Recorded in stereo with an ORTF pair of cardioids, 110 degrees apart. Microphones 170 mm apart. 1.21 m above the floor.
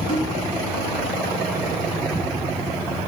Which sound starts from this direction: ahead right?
A snare drum, at 0.1 s.